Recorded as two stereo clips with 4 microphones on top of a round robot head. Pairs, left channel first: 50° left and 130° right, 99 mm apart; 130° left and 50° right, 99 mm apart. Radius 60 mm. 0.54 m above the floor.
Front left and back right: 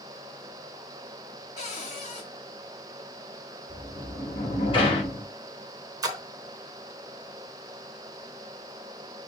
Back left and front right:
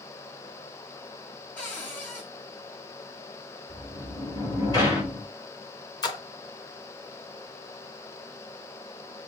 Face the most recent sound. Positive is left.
turn(degrees=180)